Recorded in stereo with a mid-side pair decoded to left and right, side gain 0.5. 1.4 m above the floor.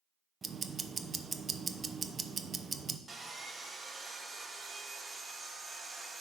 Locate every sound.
0.4 s ticking: 30° right, 0.7 m
3.1 s sawing: 20° right, 1.5 m